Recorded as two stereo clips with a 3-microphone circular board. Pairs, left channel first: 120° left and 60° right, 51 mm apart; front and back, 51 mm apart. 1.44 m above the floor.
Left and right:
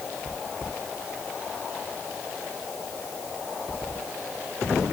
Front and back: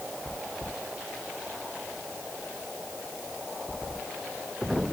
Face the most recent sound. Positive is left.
No sound to turn to.